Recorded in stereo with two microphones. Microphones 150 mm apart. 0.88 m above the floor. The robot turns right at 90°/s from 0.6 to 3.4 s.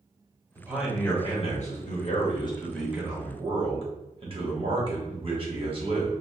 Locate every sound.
0.6 s a man speaking: 25° right, 1.2 m; by 6.1 s 130° right, 1.2 m